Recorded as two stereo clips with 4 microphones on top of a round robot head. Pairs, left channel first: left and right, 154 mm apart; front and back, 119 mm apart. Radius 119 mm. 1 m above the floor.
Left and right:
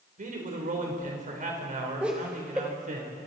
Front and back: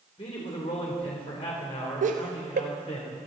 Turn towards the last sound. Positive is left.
turn(degrees=-175)